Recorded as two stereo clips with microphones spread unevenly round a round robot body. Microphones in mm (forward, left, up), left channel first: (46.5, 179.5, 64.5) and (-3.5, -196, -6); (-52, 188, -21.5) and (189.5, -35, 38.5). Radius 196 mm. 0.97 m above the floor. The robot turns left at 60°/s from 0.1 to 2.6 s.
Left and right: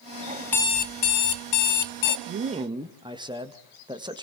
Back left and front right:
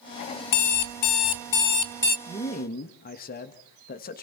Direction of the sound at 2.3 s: 145° right.